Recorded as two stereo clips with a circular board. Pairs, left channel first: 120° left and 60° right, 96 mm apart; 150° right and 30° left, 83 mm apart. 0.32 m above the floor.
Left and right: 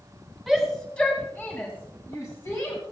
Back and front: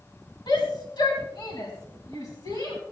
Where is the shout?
150° right, 3 m; by 2.8 s 165° left, 4 m.